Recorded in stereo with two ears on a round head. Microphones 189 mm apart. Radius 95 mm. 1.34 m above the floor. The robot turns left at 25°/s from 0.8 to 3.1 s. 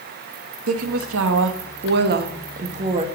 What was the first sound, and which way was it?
A woman speaking, 95° right.